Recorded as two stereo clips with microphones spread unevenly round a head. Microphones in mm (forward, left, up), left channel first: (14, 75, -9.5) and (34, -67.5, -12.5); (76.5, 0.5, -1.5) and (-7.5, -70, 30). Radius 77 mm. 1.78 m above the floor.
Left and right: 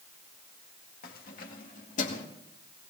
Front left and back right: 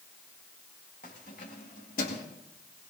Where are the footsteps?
No footsteps in this recording.